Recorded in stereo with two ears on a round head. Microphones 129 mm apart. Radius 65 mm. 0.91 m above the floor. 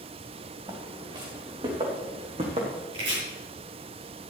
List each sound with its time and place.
0.7 s footsteps: 30° right (ahead or behind), 4 m; by 2.8 s 50° right (ahead or behind), 3.5 m
2.9 s chopping: 40° right (ahead or behind), 6 m